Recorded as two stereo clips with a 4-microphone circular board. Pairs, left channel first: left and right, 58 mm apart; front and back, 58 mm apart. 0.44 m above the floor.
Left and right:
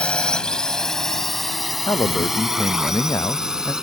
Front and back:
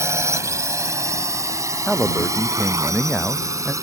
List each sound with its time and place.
0.0 s a drone: 160° left; by 3.8 s 165° right
1.9 s a man speaking: 85° left